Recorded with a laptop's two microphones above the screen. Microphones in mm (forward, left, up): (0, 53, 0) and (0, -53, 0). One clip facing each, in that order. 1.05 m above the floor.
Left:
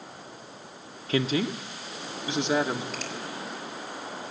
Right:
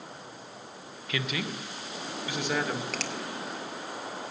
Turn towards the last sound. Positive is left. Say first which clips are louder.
# right 1 dB
turn(degrees=-80)